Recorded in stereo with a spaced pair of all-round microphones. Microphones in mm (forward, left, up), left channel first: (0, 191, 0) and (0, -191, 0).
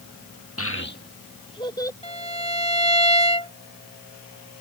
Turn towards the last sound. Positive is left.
turn(degrees=15)  # may be behind; listen again after turning